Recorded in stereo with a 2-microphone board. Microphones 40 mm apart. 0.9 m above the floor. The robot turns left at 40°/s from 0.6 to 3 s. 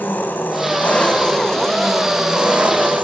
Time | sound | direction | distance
0.0 | an engine running | 50° left | 3 m